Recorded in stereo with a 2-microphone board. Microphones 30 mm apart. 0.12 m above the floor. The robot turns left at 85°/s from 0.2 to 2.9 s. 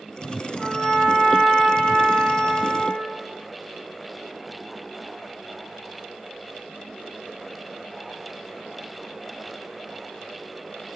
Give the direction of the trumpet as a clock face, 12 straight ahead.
11 o'clock.